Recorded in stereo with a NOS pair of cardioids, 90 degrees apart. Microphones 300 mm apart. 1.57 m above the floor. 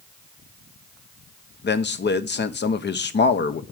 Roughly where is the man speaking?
Ahead left.